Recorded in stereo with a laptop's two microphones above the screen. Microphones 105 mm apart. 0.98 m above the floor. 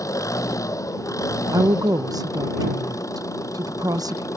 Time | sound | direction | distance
0.0 | an engine running | 30° left (ahead or behind) | ?
1.5 | a woman speaking | 35° right (ahead or behind) | ?